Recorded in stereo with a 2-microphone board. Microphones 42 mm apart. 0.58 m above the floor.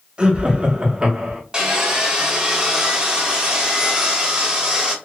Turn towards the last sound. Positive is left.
turn(degrees=-20)  # may be behind; listen again after turning